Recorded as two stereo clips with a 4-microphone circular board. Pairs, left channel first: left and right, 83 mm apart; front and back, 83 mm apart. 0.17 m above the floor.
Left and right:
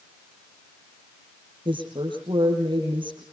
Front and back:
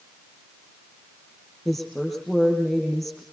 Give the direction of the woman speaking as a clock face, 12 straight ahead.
3 o'clock.